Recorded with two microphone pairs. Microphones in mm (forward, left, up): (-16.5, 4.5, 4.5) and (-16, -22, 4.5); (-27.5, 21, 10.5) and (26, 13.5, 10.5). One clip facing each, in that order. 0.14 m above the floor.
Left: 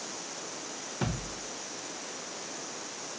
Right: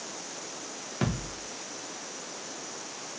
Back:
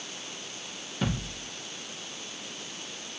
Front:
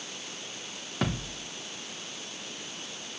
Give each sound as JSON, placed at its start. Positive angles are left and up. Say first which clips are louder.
{"t": 1.0, "sound": "a thud", "louder": "right 3 dB, even", "azimuth_deg": -35, "distance_m": 4.0}